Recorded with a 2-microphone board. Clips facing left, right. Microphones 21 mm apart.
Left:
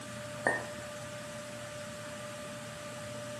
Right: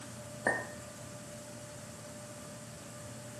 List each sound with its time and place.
0.5 s a clink: 15° left (ahead or behind), 0.5 m